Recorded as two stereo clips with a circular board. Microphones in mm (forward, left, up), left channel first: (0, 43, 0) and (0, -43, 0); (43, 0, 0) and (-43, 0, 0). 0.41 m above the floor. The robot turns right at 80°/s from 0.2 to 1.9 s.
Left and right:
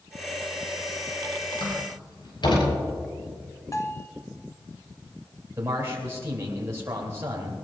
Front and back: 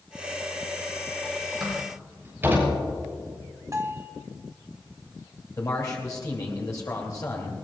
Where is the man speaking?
35° right, 2.5 m.